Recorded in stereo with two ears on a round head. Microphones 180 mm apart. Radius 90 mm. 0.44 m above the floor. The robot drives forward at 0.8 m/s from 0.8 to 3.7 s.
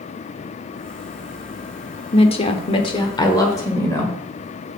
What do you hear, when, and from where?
2.1 s a woman speaking: 30° left (ahead or behind), 0.8 m; by 4.2 s 15° left (ahead or behind), 1.4 m